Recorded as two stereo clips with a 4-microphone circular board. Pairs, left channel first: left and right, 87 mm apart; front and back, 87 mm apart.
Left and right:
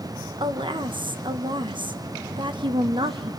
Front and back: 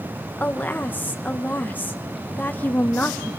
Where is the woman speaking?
70° right, 1.1 m.